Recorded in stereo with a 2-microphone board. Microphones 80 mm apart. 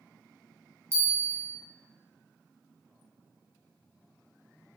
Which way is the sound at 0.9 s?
35° right (ahead or behind).